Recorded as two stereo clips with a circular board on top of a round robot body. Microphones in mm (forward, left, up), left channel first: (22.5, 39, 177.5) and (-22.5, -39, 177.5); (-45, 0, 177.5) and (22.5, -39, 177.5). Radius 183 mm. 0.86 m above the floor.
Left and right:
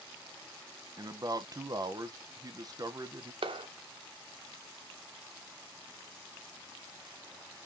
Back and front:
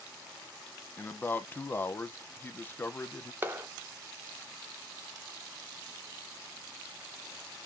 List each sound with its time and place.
1.0 s a man speaking: 150° right, 0.8 m
3.4 s a clap: 95° right, 0.6 m